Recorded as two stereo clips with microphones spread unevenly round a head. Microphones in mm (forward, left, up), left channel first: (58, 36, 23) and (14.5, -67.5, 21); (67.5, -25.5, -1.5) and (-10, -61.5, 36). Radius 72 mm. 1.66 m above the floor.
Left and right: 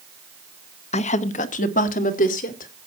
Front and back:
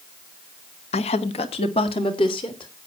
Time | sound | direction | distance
0.9 | a woman speaking | 40° left | 0.8 m